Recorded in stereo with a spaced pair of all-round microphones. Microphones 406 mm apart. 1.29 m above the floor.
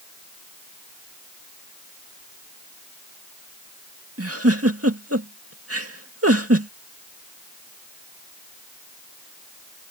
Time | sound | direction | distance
4.2 | a giggle | 35° right (ahead or behind) | ?